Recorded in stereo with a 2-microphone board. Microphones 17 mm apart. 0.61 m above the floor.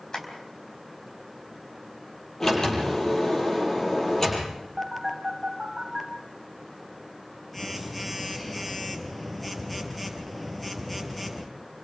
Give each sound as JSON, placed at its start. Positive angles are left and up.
{"t": 0.1, "sound": "tapping", "side_deg": 40, "distance_m": 4.5}
{"t": 2.4, "sound": "a sliding door", "side_deg": 30, "distance_m": 6.0}
{"t": 4.8, "sound": "a phone buzzing", "side_deg": 5, "distance_m": 2.5}